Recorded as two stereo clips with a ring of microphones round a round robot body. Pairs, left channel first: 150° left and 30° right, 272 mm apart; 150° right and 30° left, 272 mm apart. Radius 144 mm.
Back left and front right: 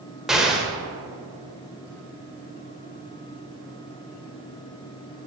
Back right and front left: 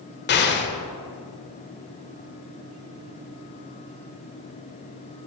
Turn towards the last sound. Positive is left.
turn(degrees=-115)